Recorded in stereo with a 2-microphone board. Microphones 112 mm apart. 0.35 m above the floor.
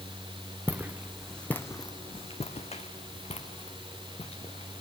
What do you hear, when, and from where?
0.7 s footsteps: 15° right (ahead or behind), 2.0 m; by 4.8 s 65° left (ahead or behind), 4 m